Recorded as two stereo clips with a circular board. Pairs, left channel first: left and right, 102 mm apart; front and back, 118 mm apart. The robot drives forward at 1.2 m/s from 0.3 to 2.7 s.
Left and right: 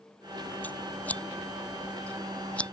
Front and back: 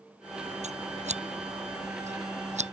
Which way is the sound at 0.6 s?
165° left.